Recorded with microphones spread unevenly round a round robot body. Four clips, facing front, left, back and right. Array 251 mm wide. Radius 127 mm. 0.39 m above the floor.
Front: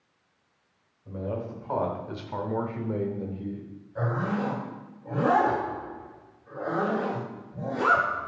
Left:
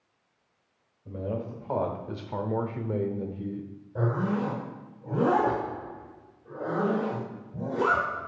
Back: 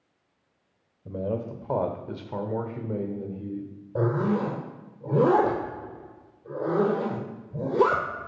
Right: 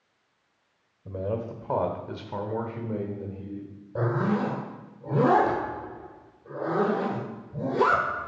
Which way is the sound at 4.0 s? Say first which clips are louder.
Right 2 dB, back 4 dB; 165° right.